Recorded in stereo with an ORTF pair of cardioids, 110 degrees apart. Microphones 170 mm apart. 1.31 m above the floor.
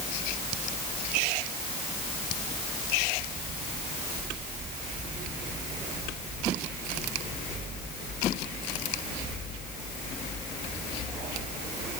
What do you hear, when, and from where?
Only background noise.